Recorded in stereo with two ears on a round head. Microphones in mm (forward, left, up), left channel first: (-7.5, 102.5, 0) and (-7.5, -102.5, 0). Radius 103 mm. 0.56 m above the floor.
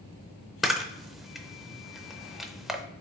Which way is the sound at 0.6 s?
Centre (ahead or behind).